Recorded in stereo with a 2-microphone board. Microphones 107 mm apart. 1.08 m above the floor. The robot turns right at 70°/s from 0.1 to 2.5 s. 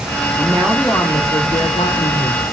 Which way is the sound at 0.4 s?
20° right.